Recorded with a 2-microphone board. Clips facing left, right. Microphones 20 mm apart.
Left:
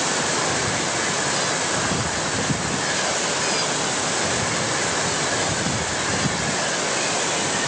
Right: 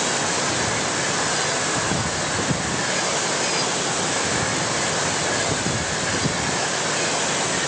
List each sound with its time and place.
Only background noise.